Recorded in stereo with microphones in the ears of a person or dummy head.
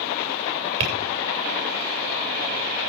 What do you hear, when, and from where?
0.8 s tapping: 35° right (ahead or behind), 8 m